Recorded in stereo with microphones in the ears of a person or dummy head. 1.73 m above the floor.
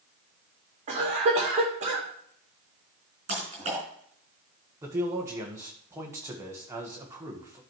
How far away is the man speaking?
About 1.5 m.